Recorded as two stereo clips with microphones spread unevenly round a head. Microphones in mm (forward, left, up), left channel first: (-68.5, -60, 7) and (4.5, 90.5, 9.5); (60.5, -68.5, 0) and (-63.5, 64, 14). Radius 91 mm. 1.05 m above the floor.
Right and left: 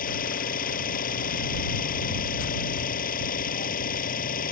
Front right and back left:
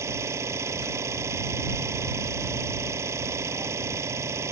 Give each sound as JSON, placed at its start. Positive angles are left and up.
{"t": 0.0, "sound": "an engine running", "azimuth_deg": -150}